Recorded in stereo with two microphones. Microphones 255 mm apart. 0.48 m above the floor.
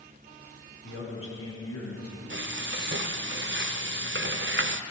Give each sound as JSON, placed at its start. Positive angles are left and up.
{"t": 0.8, "sound": "a man speaking", "side_deg": 50, "distance_m": 4.0}
{"t": 2.3, "sound": "frying", "side_deg": -45, "distance_m": 0.6}